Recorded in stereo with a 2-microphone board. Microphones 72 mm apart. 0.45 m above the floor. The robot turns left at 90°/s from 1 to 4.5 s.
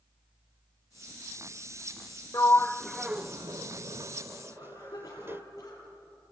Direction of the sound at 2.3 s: 45° left (ahead or behind).